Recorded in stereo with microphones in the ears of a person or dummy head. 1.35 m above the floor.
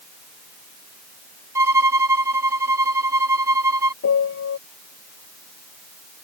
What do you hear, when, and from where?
1.6 s a violin: 15° right (ahead or behind)
4.0 s a piano: 65° left (ahead or behind)